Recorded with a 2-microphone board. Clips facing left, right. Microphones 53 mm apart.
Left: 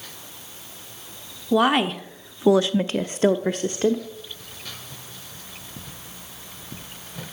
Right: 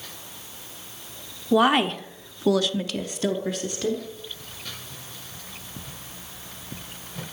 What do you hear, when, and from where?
1.5 s a woman speaking: centre (ahead or behind), 1.2 m; by 4.0 s 35° left (ahead or behind), 1.3 m